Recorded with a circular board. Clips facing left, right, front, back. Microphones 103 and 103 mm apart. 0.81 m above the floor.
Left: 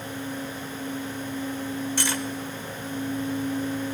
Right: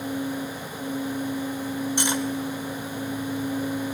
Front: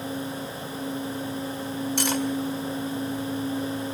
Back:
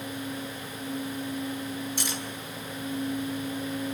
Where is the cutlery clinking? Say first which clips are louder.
Right 3 dB, front 9 dB; 20° right, 2.0 m.